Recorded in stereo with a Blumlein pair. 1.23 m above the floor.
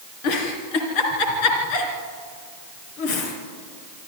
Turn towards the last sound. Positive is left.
turn(degrees=45)